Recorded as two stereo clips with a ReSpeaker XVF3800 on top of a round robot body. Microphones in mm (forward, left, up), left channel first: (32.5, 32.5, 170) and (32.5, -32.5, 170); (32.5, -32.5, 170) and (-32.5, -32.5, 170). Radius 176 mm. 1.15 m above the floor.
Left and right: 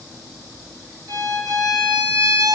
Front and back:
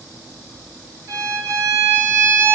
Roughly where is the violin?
Behind right.